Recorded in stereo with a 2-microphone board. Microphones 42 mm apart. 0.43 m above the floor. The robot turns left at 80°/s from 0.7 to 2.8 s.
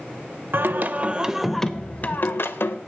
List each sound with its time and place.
0.5 s singing: 115° right, 0.6 m; by 2.8 s 80° left, 0.6 m